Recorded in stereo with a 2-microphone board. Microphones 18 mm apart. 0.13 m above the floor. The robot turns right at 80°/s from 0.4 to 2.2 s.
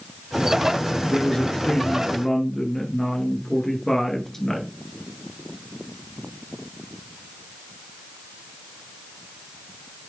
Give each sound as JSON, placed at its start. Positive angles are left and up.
{"t": 1.0, "sound": "a woman speaking", "azimuth_deg": 45, "distance_m": 2.0}